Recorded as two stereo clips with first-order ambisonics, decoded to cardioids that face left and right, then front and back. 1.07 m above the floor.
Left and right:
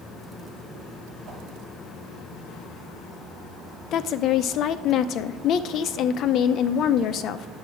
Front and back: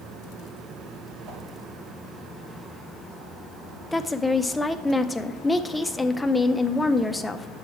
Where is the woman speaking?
85° left, 0.5 m.